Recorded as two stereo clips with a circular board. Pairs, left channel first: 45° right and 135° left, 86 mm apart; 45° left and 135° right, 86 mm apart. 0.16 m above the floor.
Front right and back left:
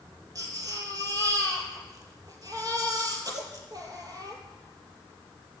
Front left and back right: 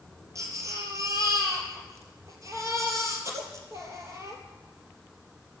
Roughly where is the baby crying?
Behind.